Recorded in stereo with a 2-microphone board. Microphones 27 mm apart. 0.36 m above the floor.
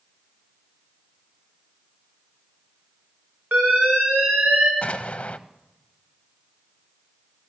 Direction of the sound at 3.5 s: 80° right.